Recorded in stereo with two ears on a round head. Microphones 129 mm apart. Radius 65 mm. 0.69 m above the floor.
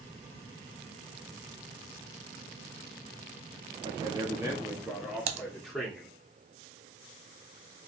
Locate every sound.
3.8 s a man speaking: 30° right (ahead or behind), 1.4 m; by 6.1 s centre (ahead or behind), 2.5 m
5.3 s typing on a keyboard: 50° right (ahead or behind), 0.7 m